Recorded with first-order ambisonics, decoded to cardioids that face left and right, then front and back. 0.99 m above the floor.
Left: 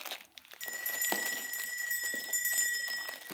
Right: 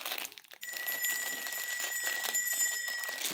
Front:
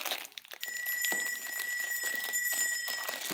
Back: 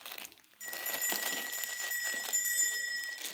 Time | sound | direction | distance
0.6 | a bell | 100° left | 0.7 m